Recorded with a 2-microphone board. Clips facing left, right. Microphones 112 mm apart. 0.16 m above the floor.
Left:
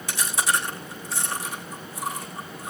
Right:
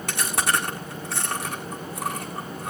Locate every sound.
0.1 s chewing: 65° right (ahead or behind), 7 m